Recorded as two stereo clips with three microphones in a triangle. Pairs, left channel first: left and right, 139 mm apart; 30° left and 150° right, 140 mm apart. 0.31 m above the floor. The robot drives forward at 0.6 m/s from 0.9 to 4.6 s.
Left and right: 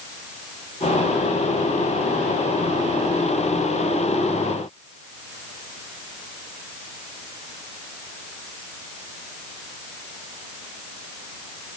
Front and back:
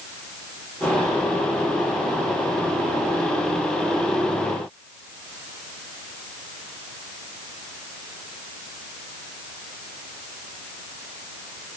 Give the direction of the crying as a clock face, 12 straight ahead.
No crying in this recording.